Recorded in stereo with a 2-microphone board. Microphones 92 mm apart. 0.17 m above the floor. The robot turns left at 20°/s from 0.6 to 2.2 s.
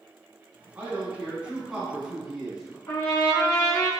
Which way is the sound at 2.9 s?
35° left (ahead or behind).